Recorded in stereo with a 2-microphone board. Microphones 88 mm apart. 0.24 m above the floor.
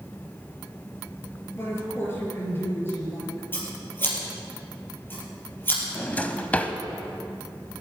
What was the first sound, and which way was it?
A woman speaking, 25° left (ahead or behind).